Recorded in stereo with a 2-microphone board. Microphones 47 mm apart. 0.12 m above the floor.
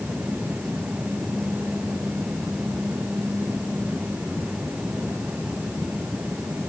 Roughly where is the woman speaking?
I don't hear a woman speaking.